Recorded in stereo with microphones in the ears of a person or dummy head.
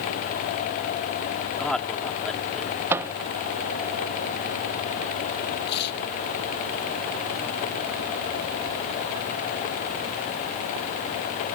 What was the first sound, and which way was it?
A man speaking, centre (ahead or behind).